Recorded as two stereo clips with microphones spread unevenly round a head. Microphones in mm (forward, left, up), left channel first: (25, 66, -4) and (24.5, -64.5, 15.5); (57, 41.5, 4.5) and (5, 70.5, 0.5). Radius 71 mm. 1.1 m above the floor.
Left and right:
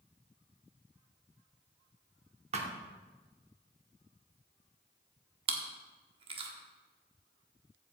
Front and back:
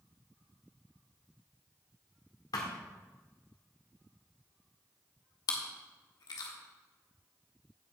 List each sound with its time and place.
2.5 s a thud: 55° right, 1.4 m
5.5 s chewing: 45° right, 1.4 m